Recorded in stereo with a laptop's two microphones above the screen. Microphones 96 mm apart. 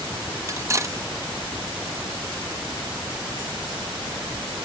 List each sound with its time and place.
0.5 s cutlery clinking: 30° right (ahead or behind)